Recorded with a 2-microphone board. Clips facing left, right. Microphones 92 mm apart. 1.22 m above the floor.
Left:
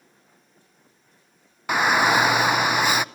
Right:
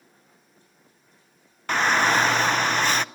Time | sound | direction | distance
1.7 | a shout | 10° left (ahead or behind) | 0.6 m